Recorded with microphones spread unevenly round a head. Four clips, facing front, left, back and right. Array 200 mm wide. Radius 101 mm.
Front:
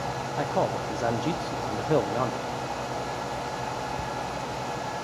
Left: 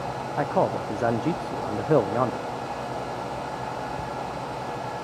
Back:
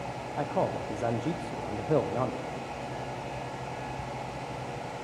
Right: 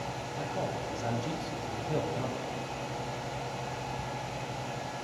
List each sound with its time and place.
0.4 s a man speaking: 85° left, 0.9 m